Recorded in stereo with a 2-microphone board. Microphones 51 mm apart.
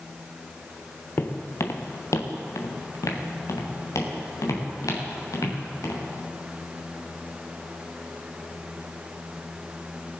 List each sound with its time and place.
1.2 s footsteps: 45° left (ahead or behind), 1.4 m; by 6.0 s 85° left, 5 m